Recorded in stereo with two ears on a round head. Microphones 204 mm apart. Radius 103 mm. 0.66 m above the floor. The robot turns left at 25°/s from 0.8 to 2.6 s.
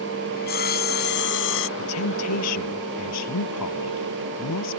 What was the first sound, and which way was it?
Sawing, 45° left (ahead or behind).